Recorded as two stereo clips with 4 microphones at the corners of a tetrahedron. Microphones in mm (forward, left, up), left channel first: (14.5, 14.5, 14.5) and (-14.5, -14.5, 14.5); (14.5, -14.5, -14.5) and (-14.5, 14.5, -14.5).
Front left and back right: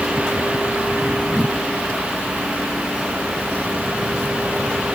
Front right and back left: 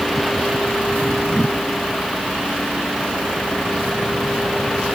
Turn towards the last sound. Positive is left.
No sound to turn to.